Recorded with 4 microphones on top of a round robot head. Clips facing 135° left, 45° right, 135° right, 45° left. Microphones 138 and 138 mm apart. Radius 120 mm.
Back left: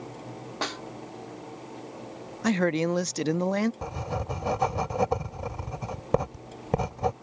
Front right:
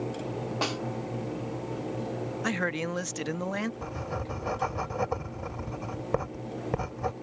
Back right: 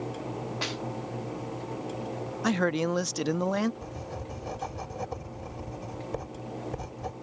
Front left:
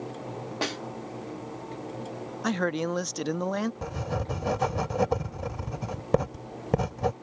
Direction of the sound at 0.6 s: 30° left.